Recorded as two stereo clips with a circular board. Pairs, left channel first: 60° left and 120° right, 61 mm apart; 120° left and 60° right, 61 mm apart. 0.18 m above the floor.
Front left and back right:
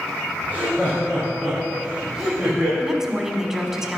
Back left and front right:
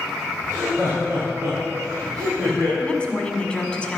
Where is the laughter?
5° right, 5 m; by 2.7 s 35° right, 6.5 m.